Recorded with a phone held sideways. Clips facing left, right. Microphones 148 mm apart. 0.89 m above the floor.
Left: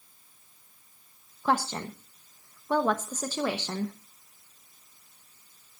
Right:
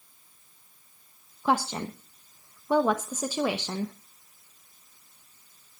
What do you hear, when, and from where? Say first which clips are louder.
1.4 s a woman speaking: right 1 dB; 10° right (ahead or behind), 1.1 m